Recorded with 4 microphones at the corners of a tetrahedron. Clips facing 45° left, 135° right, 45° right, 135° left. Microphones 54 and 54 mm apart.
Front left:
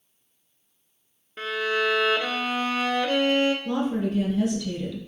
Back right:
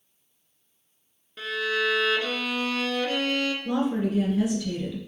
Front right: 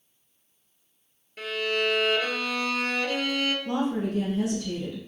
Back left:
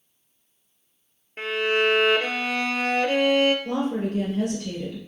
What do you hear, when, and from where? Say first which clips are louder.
1.4 s a violin: front left 1 dB, back left 5 dB; 95° left, 0.5 m
3.6 s a woman speaking: even, back left 1 dB; 150° left, 1.8 m